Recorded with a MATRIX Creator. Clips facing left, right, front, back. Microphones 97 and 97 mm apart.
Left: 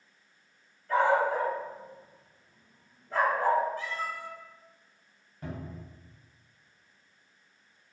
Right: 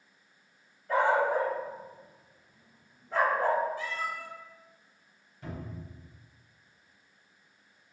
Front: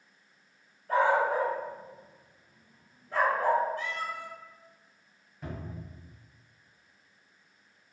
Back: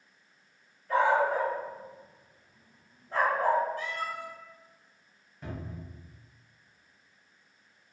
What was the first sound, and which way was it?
A dog barking, 20° right.